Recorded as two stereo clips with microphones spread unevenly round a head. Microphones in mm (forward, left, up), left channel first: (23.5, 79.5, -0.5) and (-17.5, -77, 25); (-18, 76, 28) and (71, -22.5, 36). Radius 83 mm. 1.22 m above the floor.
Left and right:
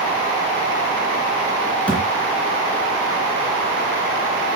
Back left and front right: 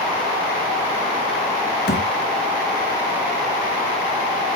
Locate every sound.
1.9 s a thud: 160° left, 2.5 m